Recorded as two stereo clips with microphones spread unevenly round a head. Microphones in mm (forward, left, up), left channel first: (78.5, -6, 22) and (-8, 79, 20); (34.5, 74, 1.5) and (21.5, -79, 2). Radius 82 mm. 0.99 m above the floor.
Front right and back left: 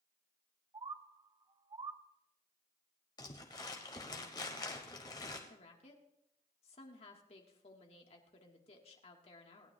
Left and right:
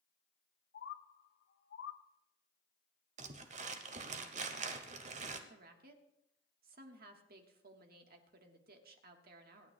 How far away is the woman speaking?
About 1.5 m.